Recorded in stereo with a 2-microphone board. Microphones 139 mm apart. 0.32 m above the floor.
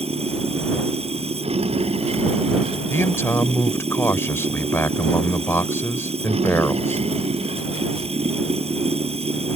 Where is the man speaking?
20° left (ahead or behind).